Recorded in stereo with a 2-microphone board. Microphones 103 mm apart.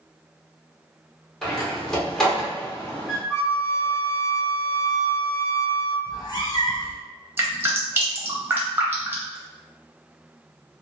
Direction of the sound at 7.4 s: 25° right (ahead or behind).